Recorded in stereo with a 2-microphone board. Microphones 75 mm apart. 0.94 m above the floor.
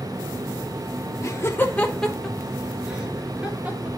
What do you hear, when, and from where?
1.2 s laughter: 40° left (ahead or behind), 1.0 m; by 3.9 s 15° right (ahead or behind), 3 m